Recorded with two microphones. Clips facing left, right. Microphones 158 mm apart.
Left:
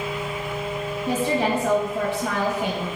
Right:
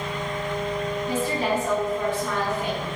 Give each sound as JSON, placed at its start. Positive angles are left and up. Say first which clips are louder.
{"t": 1.1, "sound": "a woman speaking", "louder": "left 4 dB", "side_deg": 80, "distance_m": 4.0}